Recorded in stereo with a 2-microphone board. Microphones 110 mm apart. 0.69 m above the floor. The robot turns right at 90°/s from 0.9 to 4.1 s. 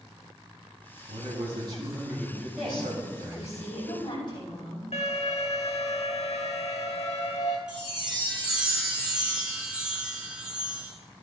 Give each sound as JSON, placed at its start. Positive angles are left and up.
{"t": 1.1, "sound": "a man speaking", "azimuth_deg": -100, "distance_m": 5.5}
{"t": 2.6, "sound": "a woman speaking", "azimuth_deg": -5, "distance_m": 5.5}
{"t": 4.9, "sound": "an alarm", "side_deg": 80, "distance_m": 2.0}
{"t": 7.7, "sound": "a chime", "side_deg": -10, "distance_m": 2.5}